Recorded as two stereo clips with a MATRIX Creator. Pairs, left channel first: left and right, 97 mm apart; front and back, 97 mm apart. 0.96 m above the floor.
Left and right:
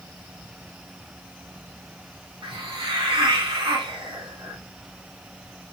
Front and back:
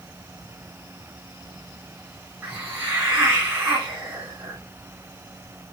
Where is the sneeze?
I don't hear a sneeze.